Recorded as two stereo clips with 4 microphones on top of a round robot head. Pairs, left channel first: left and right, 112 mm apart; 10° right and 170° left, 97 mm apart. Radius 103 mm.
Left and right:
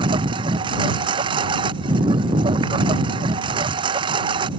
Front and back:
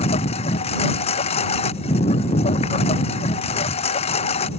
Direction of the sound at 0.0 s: 35° right.